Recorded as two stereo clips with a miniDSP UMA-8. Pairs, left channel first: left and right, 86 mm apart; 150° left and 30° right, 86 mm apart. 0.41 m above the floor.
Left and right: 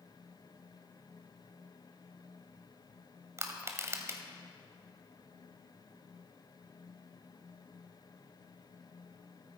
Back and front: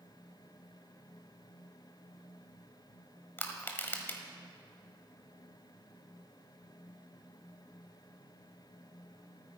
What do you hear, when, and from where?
3.4 s crushing: 145° right, 1.4 m